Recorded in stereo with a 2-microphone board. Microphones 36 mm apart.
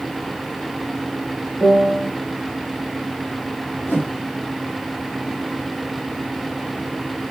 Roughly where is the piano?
Left.